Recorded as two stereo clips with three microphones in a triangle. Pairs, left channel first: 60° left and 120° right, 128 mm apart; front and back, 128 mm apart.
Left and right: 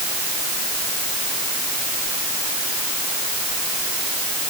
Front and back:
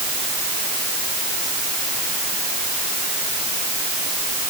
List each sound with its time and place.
Only background noise.